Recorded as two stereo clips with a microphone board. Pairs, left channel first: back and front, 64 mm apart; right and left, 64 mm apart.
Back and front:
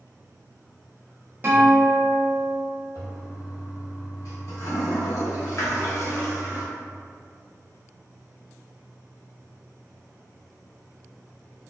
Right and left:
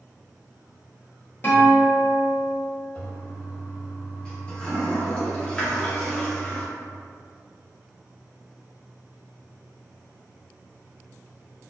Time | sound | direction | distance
1.4 | a guitar | 45° right | 1.2 m
3.0 | a toilet flushing | 160° right | 1.0 m